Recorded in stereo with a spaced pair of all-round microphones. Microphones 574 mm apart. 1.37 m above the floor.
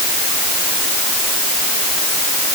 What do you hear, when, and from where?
Only background noise.